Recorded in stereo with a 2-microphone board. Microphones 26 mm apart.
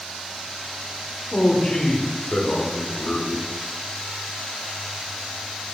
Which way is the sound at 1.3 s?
40° left (ahead or behind).